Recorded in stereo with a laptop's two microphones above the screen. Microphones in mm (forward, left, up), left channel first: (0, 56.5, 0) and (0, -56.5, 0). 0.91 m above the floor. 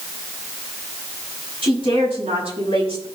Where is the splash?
No splash in this recording.